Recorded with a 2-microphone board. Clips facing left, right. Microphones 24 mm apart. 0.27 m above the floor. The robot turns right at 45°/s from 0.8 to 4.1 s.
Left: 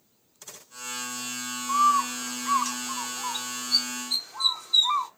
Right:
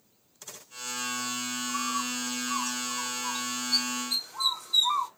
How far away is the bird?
About 0.8 m.